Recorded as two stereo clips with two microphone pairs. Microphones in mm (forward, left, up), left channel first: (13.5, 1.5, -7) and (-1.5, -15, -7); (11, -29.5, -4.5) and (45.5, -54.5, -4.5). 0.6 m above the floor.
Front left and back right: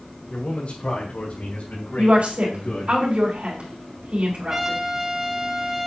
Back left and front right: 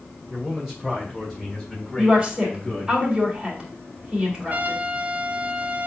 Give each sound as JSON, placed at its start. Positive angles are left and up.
{"t": 0.3, "sound": "a man speaking", "azimuth_deg": 40, "distance_m": 2.0}
{"t": 2.0, "sound": "a woman speaking", "azimuth_deg": -110, "distance_m": 3.5}
{"t": 4.5, "sound": "a trumpet", "azimuth_deg": -65, "distance_m": 1.0}